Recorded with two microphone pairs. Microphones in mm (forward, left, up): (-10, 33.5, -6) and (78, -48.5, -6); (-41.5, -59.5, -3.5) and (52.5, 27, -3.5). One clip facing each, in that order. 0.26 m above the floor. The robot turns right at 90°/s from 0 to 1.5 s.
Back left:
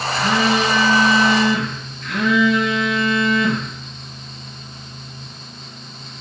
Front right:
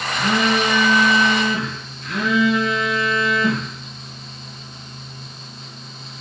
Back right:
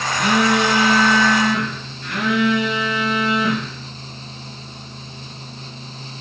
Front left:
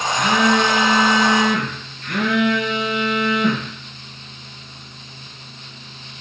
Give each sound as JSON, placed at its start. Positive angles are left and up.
{"t": 0.1, "sound": "a phone buzzing", "azimuth_deg": -115, "distance_m": 3.5}